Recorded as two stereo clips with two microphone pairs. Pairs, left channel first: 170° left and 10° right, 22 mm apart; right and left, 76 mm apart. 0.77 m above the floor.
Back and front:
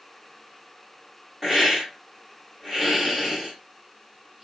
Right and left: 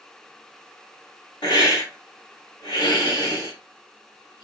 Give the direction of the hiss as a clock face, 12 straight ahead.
3 o'clock.